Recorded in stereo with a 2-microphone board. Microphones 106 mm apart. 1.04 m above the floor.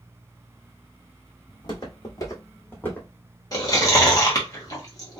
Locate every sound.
1.5 s footsteps: 45° left (ahead or behind), 2 m; by 3.1 s 15° left (ahead or behind), 1.9 m
3.5 s chewing: 35° left (ahead or behind), 1.2 m